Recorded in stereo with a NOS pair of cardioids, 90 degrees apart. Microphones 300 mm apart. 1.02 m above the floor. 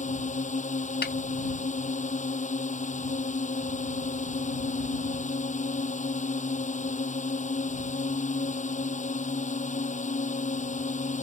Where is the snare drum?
35° left.